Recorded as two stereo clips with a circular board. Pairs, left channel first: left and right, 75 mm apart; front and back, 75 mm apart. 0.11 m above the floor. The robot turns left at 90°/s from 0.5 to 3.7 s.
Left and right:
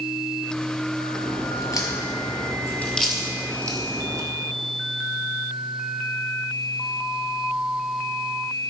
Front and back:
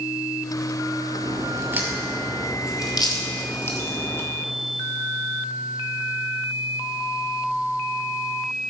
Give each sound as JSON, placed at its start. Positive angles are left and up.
{"t": 1.2, "sound": "a crack", "azimuth_deg": 170, "distance_m": 1.6}